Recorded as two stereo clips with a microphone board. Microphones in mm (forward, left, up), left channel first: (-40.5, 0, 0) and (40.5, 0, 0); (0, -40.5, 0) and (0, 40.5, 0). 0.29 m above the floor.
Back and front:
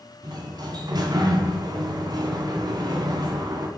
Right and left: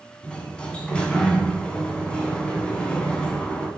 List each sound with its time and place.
0.2 s a sliding door: 15° right, 2.5 m